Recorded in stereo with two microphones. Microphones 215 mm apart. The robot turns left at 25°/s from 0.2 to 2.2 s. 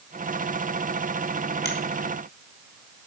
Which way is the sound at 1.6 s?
50° right (ahead or behind).